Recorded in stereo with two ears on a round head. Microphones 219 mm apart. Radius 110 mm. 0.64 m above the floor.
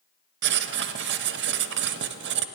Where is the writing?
45° right (ahead or behind), 0.6 m.